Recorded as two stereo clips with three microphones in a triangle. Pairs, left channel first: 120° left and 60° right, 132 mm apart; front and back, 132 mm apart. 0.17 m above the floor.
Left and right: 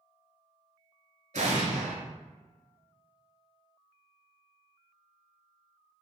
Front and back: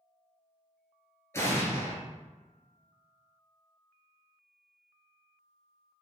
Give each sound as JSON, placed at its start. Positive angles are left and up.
{"t": 1.3, "sound": "an explosion", "azimuth_deg": -65, "distance_m": 0.8}